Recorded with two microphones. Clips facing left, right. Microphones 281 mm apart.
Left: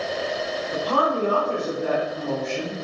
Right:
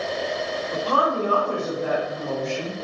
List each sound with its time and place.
0.7 s a woman speaking: 15° left (ahead or behind), 1.2 m